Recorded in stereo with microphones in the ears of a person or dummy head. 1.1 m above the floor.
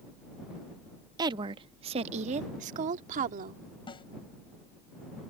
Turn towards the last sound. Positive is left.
turn(degrees=30)  # may be behind; listen again after turning